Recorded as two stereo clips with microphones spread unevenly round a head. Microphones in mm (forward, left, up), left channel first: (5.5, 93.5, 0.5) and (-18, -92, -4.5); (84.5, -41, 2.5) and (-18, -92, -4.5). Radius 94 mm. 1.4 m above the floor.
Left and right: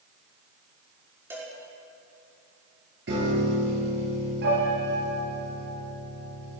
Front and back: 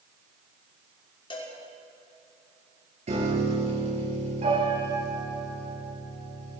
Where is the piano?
130° right, 8 m.